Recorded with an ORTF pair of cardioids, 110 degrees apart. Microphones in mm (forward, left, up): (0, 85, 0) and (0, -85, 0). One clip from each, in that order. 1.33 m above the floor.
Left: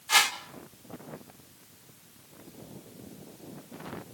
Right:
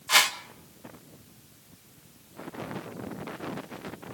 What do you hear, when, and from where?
0.1 s a whoosh: 25° right, 2 m